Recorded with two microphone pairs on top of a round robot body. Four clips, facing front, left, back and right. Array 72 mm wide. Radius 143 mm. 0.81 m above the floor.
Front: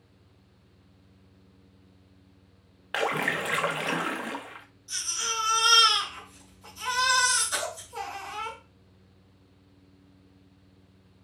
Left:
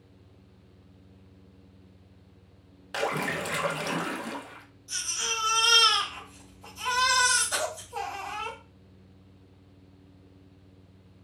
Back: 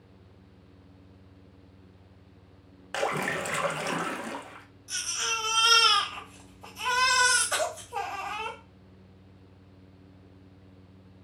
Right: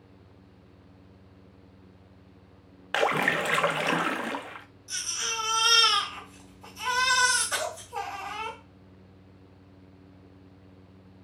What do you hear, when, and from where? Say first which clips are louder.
2.9 s a splash: right 5 dB, front 1 dB; 80° right, 0.7 m
4.9 s a baby crying: left 1 dB, back 1 dB; 150° right, 3 m